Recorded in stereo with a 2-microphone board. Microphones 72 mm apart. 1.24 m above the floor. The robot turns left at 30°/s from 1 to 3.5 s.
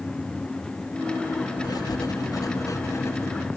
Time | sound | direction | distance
1.6 | writing | 90° left | 0.9 m